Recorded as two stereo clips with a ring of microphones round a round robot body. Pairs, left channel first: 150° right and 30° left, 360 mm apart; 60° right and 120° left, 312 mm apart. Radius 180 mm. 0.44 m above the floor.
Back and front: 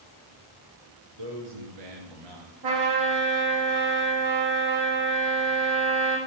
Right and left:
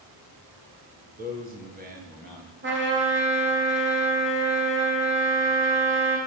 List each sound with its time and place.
1.2 s a man speaking: 55° left, 5 m
2.6 s a trumpet: 65° left, 5.5 m